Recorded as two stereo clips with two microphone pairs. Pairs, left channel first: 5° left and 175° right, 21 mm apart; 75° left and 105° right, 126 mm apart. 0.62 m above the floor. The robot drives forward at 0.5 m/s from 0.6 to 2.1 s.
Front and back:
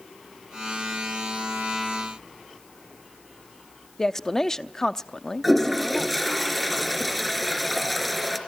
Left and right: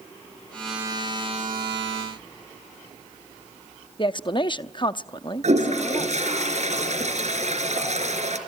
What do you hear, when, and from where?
4.0 s a woman speaking: 65° left, 0.7 m
5.4 s a toilet flushing: 80° right, 3.5 m